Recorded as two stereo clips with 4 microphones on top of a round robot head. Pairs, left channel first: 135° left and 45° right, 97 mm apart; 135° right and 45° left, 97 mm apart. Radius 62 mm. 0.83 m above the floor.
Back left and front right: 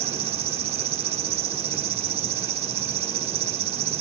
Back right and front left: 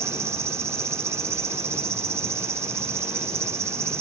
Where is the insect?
20° right.